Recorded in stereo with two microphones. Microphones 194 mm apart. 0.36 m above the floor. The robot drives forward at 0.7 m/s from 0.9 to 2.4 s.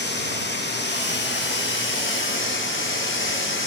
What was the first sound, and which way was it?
Running water, 65° left (ahead or behind).